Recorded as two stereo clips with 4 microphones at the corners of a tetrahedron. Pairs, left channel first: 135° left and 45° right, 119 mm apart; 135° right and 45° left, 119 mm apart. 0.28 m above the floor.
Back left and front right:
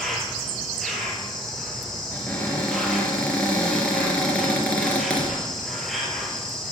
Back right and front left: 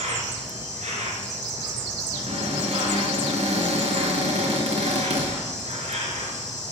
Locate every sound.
0.0 s an insect: 45° left, 3 m
2.1 s a cupboard door: 55° left, 3.5 m